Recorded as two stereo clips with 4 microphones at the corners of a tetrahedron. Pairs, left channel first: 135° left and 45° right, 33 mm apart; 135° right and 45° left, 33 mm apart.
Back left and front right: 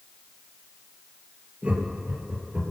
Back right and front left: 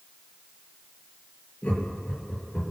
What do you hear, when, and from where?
1.6 s laughter: 95° right, 5.5 m